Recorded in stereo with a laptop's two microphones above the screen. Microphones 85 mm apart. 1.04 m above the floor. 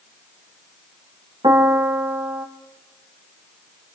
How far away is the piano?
About 2 m.